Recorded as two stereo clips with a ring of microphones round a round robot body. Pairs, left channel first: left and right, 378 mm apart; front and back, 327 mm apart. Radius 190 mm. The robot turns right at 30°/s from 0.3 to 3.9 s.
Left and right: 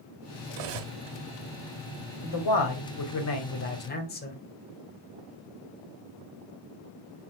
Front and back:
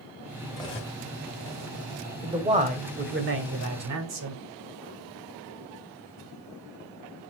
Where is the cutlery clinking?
80° right, 1.2 m; by 1.0 s 70° right, 1.2 m.